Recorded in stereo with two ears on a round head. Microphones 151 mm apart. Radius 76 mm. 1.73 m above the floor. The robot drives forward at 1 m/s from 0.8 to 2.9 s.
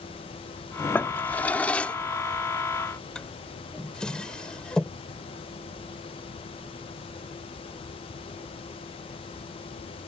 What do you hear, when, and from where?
0.9 s a drawer: 10° left (ahead or behind); by 5.0 s 5° left (ahead or behind)